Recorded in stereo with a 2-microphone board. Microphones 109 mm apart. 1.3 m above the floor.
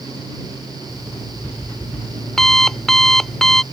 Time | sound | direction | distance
0.9 | an alarm clock | 5° left (ahead or behind) | ?